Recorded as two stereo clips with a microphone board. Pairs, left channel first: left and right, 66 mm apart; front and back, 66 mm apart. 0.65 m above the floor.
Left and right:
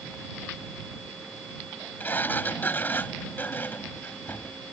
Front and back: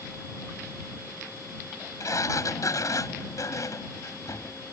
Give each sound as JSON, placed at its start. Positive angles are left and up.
{"t": 2.0, "sound": "a sliding door", "azimuth_deg": 30}